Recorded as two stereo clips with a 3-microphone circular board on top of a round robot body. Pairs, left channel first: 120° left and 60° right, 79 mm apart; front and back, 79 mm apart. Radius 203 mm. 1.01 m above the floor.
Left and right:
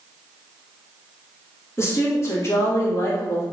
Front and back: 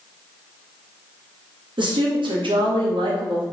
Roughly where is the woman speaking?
Behind.